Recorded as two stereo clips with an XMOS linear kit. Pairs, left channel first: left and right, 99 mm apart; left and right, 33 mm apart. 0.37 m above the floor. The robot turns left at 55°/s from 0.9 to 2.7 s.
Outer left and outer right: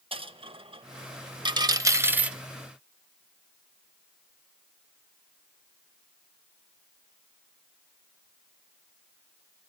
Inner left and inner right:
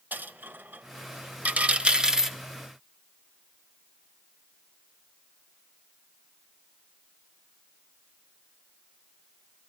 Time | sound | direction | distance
0.1 | a dropped coin | 65° right (ahead or behind) | 0.5 m